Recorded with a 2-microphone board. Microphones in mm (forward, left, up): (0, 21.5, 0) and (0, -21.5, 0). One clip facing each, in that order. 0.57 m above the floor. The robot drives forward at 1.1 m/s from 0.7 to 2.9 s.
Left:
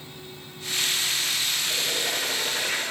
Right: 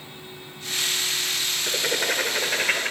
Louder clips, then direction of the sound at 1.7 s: Right 3 dB; 70° right (ahead or behind).